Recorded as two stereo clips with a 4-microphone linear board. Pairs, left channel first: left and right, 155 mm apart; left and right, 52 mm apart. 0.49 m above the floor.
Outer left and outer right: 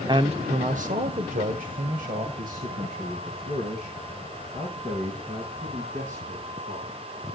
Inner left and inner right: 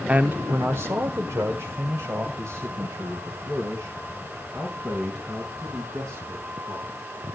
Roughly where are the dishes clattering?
I don't hear dishes clattering.